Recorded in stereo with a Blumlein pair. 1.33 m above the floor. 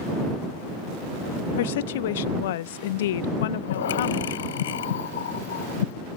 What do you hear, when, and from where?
1.6 s a woman speaking: 55° left
3.4 s breathing: 60° left